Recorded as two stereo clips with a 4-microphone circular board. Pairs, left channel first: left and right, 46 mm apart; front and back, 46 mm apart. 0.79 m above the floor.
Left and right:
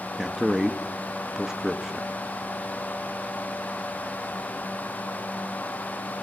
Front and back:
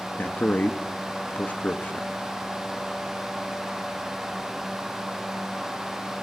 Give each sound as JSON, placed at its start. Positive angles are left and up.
{"t": 0.2, "sound": "a man speaking", "azimuth_deg": -20, "distance_m": 1.4}